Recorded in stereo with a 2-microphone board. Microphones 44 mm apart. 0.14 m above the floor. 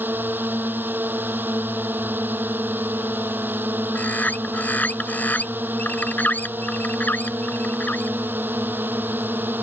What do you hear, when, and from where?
0.0 s a drone: 45° right (ahead or behind)
4.0 s a bird: 40° left (ahead or behind)